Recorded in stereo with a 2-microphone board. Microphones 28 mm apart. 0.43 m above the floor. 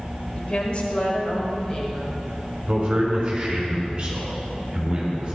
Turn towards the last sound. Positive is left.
turn(degrees=-30)  # may be behind; listen again after turning